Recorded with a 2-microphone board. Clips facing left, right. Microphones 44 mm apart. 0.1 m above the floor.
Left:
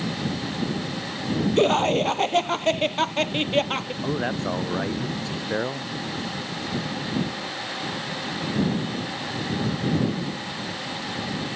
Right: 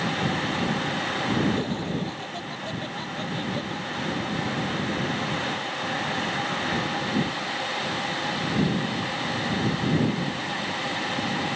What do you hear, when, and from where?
1.6 s laughter: 65° left (ahead or behind)
4.0 s a man speaking: 75° left (ahead or behind)